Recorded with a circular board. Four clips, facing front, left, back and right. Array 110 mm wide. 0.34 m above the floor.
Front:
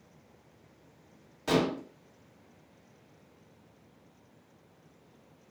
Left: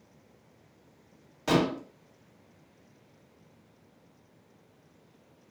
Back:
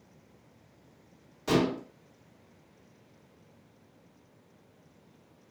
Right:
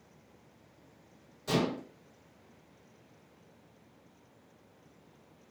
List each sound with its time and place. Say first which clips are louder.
1.5 s dishes clattering: left 5 dB, back 1 dB; 80° left, 1.2 m